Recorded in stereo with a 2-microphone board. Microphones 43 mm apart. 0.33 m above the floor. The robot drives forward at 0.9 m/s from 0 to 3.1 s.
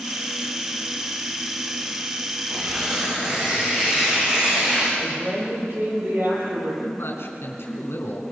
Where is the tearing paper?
20° right (ahead or behind), 9 m; by 4.9 s 25° right (ahead or behind), 8.5 m.